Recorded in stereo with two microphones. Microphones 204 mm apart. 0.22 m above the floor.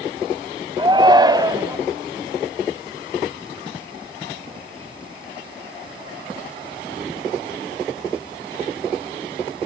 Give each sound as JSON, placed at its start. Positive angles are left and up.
{"t": 0.8, "sound": "a shout", "side_deg": -25, "distance_m": 1.2}